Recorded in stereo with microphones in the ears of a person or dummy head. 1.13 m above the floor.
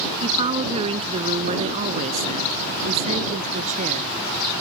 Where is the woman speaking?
30° right (ahead or behind); by 4.1 s 40° right (ahead or behind).